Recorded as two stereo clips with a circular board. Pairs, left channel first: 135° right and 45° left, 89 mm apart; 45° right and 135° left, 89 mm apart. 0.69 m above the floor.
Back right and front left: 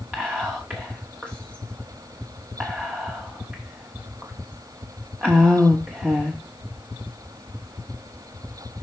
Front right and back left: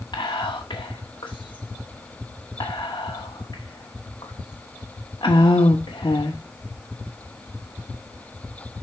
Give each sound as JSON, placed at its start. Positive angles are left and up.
{"t": 0.1, "sound": "whispering", "azimuth_deg": -25, "distance_m": 1.2}